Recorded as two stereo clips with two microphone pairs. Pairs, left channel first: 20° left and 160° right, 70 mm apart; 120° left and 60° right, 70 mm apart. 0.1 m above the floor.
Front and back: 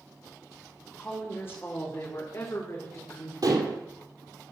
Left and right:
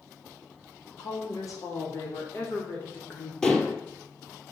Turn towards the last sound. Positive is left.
turn(degrees=-160)